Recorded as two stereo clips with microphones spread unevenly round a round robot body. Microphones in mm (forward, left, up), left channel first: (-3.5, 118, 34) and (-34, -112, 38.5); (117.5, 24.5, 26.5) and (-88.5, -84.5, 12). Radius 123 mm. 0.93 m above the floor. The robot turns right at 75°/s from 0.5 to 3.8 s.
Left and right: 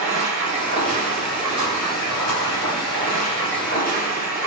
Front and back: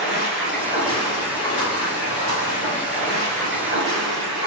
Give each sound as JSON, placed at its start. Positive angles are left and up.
{"t": 0.0, "sound": "running water", "azimuth_deg": -65, "distance_m": 1.4}